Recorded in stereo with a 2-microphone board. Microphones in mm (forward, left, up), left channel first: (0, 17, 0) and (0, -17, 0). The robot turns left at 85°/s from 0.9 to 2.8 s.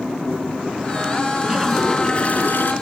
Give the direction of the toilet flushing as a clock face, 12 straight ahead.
5 o'clock.